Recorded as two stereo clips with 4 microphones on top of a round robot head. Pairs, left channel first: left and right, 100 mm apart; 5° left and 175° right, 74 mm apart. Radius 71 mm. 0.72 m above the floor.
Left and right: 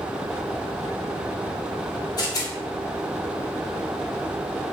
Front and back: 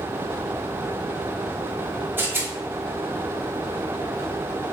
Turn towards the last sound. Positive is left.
turn(degrees=130)